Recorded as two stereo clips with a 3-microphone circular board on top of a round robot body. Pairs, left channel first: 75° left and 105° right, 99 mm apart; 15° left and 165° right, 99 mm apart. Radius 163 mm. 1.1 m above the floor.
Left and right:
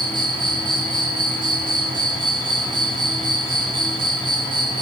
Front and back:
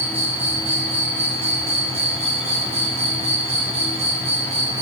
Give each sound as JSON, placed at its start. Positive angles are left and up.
{"t": 0.0, "sound": "an insect", "azimuth_deg": -155, "distance_m": 3.0}